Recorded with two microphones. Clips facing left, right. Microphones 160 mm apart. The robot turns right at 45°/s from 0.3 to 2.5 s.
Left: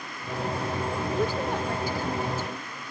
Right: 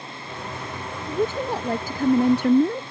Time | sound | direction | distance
1.1 | a woman speaking | 170° right | ?